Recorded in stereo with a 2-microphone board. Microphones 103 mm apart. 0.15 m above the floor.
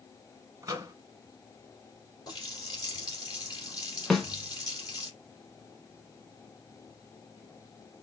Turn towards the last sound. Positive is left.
turn(degrees=5)  # may be behind; listen again after turning